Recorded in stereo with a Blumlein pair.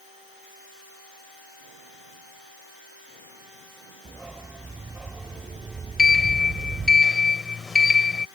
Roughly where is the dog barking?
Ahead.